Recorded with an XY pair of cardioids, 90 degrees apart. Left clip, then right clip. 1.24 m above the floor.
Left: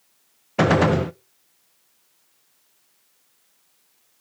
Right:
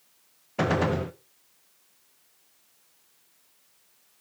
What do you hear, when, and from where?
0.6 s a gunshot: 55° left, 0.6 m